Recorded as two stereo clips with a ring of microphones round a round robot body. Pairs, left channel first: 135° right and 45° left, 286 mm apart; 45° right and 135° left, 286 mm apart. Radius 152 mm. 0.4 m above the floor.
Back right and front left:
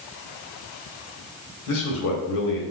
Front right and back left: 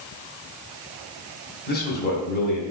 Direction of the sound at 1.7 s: 100° right.